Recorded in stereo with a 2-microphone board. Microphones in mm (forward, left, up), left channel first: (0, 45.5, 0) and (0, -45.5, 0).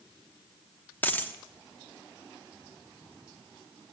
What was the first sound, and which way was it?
A dropped coin, 20° left (ahead or behind).